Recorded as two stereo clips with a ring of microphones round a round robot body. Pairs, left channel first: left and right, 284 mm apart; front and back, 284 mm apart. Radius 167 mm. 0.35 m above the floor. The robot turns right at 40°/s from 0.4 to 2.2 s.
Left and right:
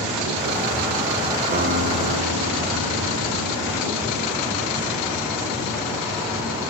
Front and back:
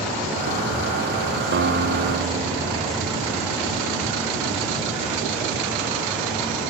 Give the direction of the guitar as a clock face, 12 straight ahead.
5 o'clock.